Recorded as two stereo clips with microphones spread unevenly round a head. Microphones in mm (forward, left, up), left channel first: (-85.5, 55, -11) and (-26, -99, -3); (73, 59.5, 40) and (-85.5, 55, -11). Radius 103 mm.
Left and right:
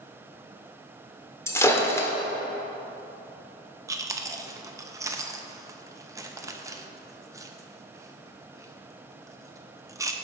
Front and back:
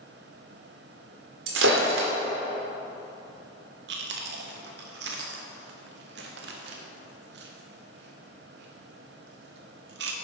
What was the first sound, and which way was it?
Breaking glass, 175° right.